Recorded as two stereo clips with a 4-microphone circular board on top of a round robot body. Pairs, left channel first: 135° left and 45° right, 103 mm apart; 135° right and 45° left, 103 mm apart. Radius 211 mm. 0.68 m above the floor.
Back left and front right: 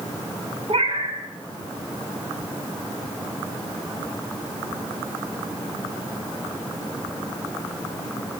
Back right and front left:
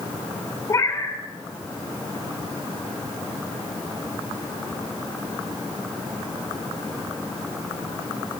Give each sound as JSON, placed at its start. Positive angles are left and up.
{"t": 0.7, "sound": "a cat meowing", "azimuth_deg": -75, "distance_m": 3.5}